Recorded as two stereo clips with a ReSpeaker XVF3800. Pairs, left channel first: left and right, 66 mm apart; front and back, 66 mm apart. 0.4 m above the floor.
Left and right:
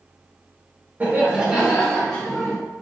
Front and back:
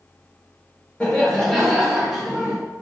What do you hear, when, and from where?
1.0 s laughter: 55° right, 1.1 m; by 2.5 s 125° left, 1.1 m